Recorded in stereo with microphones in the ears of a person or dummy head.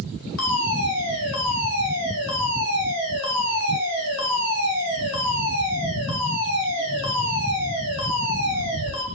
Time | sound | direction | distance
0.4 | a fire alarm | 75° left (ahead or behind) | 6 m